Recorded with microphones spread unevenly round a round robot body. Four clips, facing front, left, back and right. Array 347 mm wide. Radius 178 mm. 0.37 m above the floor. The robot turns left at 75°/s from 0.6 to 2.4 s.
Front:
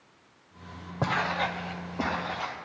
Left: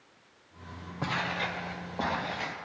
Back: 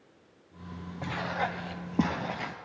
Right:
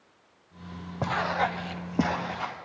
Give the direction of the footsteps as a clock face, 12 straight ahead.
1 o'clock.